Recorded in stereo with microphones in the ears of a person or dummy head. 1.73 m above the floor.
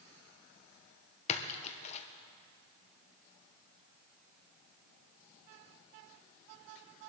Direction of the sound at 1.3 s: 35° left (ahead or behind).